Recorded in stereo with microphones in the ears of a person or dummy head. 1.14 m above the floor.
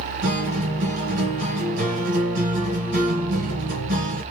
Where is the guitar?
55° right (ahead or behind), 2 m.